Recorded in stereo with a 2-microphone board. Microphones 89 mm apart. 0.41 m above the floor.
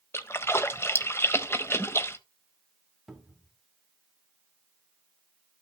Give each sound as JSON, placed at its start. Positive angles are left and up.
{"t": 0.1, "sound": "a splash", "side_deg": 30, "distance_m": 0.7}
{"t": 3.1, "sound": "a cupboard door", "side_deg": 0, "distance_m": 1.4}